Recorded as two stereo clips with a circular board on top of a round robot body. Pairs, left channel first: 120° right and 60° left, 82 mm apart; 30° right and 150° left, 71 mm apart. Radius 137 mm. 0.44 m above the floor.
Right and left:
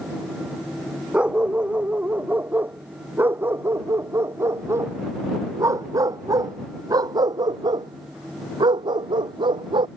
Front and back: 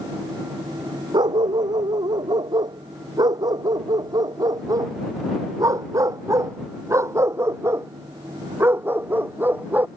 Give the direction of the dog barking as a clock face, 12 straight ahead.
7 o'clock.